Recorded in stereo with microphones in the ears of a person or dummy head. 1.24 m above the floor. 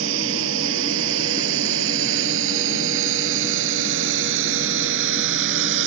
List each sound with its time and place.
0.0 s a drone: 70° right (ahead or behind); by 5.9 s 65° right (ahead or behind)